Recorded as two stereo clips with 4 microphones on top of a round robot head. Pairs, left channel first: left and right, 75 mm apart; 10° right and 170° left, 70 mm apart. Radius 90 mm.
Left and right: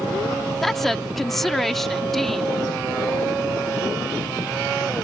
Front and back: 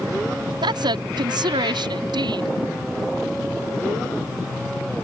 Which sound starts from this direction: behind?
A woman speaking, at 0.6 s.